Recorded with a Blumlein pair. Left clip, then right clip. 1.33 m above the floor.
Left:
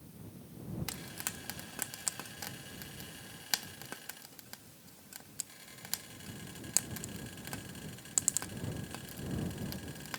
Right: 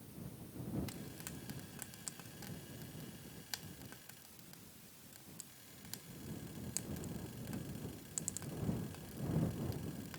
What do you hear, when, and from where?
0.9 s frying: 30° left